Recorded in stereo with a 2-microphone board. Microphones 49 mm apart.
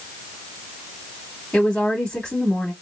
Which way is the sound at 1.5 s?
20° left (ahead or behind).